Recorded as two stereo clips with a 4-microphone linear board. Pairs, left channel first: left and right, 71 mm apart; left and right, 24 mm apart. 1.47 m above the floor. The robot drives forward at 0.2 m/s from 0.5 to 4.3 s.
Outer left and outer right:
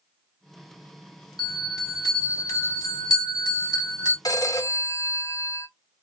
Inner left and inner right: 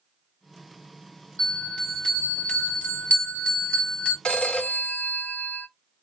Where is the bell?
60° left (ahead or behind), 1.5 m; by 4.2 s 65° left (ahead or behind), 1.4 m.